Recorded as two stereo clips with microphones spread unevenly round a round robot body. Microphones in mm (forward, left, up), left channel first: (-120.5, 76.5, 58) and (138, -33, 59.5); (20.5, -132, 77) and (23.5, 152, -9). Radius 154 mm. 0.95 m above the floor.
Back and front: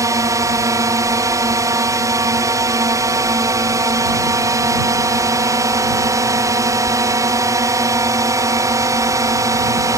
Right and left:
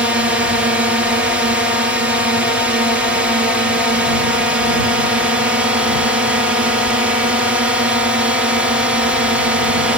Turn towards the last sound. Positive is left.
turn(degrees=45)